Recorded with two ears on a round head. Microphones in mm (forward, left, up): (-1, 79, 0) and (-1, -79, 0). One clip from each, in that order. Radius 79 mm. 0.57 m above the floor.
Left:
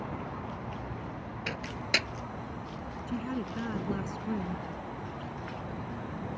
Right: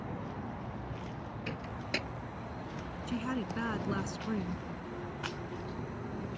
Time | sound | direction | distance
1.5 | a microwave | 45° left (ahead or behind) | ?
3.1 | a woman speaking | 40° right (ahead or behind) | ?